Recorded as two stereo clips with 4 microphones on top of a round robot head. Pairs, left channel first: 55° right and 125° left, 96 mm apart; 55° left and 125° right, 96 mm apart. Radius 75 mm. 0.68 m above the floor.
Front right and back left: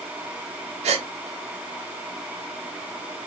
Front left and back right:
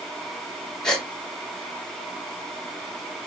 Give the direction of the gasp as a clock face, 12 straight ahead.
7 o'clock.